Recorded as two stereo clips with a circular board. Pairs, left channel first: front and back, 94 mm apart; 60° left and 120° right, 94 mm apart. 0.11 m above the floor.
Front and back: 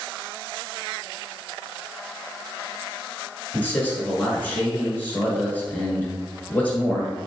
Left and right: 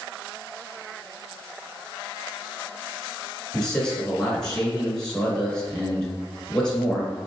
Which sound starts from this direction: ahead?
A man speaking, at 3.5 s.